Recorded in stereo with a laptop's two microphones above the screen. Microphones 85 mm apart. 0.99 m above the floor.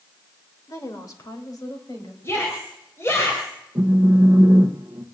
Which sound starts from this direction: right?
A phone buzzing, at 3.8 s.